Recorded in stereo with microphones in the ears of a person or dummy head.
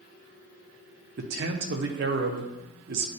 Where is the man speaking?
60° right (ahead or behind), 0.9 m.